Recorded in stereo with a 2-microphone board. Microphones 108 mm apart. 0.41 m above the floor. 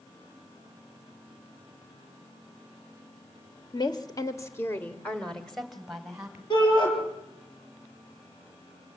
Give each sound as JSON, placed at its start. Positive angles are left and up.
{"t": 3.7, "sound": "a woman speaking", "side_deg": 40, "distance_m": 1.3}
{"t": 6.5, "sound": "a shout", "side_deg": 45, "distance_m": 7.5}